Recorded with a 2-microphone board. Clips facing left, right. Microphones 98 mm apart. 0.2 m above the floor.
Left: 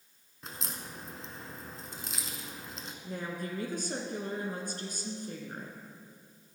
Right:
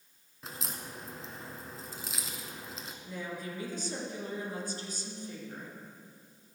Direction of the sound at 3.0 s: 55° left (ahead or behind).